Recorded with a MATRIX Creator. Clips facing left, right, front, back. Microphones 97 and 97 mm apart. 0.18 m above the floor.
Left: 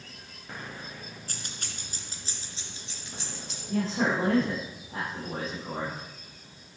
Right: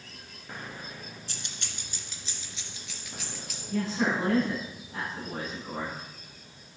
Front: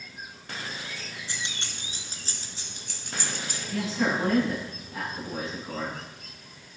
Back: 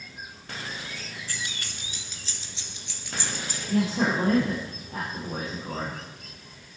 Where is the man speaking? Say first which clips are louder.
Left 1 dB, back 3 dB; 145° left, 7 m.